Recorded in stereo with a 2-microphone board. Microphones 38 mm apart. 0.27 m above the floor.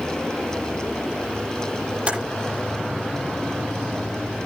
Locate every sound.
2.1 s typing on a keyboard: 30° right (ahead or behind), 8.5 m